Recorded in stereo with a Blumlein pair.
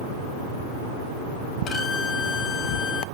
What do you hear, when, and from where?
1.7 s a violin: 25° left, 2 m